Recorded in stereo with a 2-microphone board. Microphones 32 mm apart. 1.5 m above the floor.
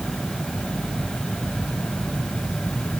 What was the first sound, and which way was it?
Only background noise.